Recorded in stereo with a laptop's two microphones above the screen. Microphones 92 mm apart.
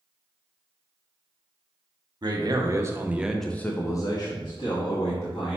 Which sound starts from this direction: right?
A man speaking, at 2.2 s.